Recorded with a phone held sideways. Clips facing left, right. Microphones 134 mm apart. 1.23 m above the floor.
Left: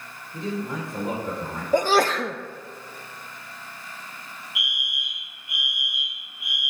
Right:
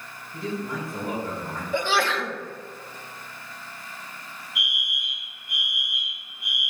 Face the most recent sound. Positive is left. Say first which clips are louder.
# right 2 dB
turn(degrees=5)  # may be behind; listen again after turning